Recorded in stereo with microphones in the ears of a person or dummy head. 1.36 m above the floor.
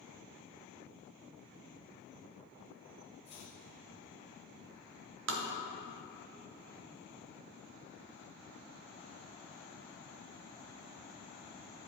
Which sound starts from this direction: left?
Chopping, at 3.2 s.